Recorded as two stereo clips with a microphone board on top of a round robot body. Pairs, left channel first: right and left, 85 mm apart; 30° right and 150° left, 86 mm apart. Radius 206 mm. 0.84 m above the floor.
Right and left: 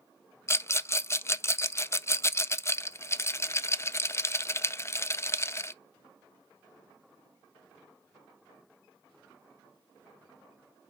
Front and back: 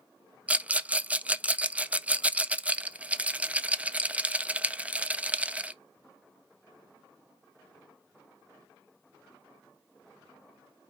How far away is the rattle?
About 0.5 m.